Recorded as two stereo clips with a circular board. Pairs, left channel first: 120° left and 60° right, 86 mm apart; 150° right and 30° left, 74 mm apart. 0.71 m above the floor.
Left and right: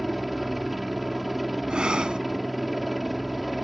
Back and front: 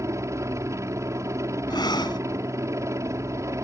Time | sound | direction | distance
0.0 | a helicopter | 30° left | ?
1.7 | breathing | 140° right | ?